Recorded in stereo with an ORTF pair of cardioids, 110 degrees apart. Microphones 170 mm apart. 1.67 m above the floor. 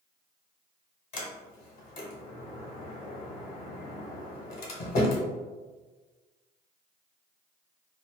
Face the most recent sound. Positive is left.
turn(degrees=60)